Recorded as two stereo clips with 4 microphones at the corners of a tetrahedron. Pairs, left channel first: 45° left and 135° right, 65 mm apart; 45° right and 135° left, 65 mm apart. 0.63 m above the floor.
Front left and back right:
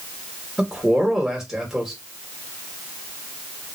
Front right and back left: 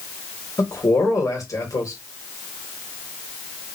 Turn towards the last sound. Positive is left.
turn(degrees=-50)